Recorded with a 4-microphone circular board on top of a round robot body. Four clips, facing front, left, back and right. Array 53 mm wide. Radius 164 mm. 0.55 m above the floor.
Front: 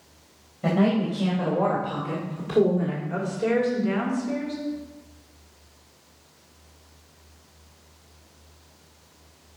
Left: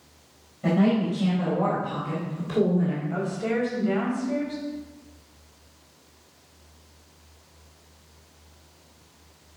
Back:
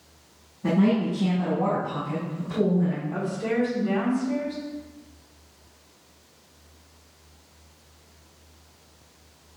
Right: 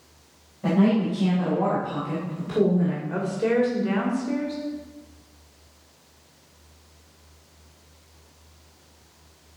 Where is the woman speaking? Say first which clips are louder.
Right 3 dB, front 3 dB; 60° right, 3 m.